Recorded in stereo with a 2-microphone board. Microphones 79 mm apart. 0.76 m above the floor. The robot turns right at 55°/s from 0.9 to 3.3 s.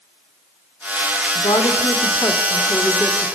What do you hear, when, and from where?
1.4 s a woman speaking: 90° left, 3 m; by 3.4 s 165° right, 3 m